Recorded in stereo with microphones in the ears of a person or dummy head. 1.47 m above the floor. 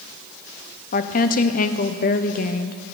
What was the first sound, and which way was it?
A woman speaking, 40° left (ahead or behind).